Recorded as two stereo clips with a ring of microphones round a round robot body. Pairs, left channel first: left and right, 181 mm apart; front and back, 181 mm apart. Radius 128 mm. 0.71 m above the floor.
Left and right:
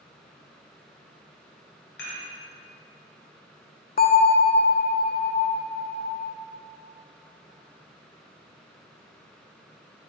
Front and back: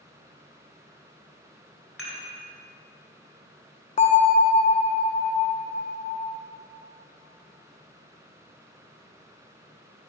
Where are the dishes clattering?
100° left, 2 m.